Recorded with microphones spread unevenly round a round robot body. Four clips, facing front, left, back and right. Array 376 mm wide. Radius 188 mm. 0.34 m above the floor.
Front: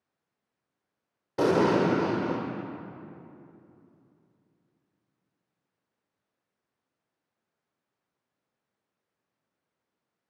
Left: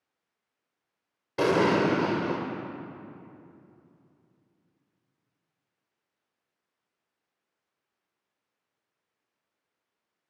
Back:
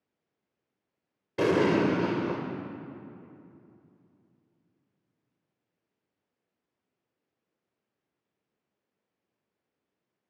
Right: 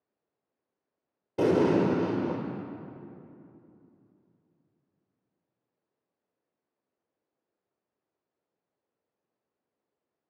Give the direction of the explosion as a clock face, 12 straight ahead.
5 o'clock.